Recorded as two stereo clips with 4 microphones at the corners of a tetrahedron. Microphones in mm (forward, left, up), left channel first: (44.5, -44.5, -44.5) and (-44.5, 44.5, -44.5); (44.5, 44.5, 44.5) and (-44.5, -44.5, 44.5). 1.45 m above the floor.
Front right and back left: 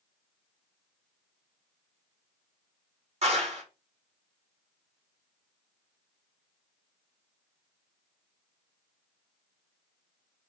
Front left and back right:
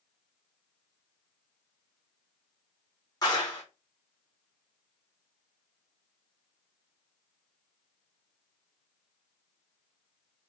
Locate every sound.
3.2 s a clap: 105° left, 3 m